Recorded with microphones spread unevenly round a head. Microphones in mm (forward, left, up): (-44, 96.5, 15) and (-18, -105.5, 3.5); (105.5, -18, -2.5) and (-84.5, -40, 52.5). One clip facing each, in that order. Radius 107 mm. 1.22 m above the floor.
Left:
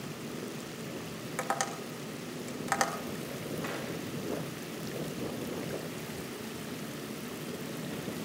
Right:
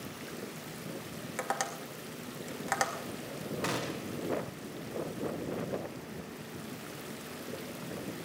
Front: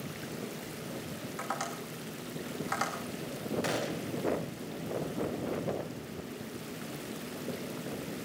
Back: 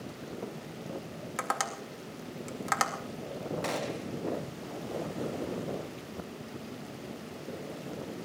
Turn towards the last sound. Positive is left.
turn(degrees=-65)